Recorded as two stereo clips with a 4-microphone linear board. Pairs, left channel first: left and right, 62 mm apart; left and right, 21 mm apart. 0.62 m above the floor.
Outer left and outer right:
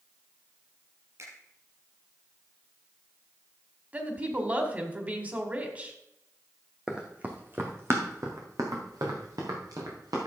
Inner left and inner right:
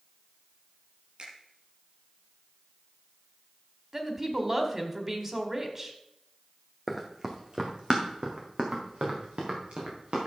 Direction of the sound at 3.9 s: 25° right (ahead or behind).